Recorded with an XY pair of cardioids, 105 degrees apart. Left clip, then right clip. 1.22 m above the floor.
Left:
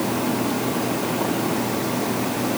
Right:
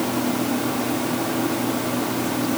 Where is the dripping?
I don't hear dripping.